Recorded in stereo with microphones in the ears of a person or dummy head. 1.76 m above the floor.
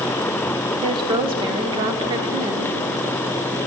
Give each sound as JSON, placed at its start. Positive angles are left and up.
{"t": 0.8, "sound": "a woman speaking", "side_deg": -25, "distance_m": 0.8}